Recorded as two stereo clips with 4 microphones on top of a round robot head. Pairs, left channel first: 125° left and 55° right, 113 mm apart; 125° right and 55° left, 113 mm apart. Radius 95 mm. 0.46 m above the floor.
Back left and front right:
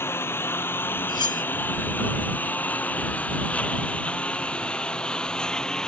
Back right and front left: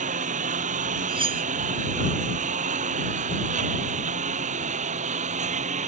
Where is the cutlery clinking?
80° left.